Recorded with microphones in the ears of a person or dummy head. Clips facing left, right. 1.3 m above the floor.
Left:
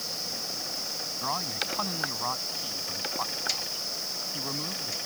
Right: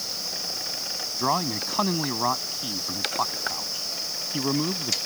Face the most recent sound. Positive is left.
turn(degrees=-65)  # may be behind; listen again after turning